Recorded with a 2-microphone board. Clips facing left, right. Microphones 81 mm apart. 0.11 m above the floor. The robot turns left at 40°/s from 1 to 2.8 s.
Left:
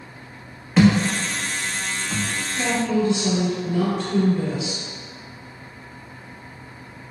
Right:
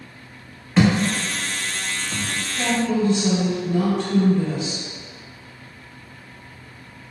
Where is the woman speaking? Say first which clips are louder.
Even; centre (ahead or behind), 1.6 m; by 4.8 s 10° left (ahead or behind), 1.6 m.